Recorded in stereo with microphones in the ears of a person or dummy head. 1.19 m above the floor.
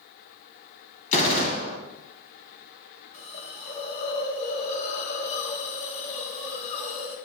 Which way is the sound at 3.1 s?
40° left (ahead or behind).